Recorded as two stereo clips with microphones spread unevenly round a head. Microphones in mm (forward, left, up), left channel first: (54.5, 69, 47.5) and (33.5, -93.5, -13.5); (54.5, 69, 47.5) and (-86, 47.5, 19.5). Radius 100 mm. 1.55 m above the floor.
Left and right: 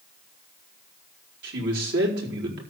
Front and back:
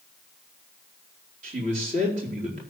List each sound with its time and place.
1.4 s a man speaking: 125° right, 4.5 m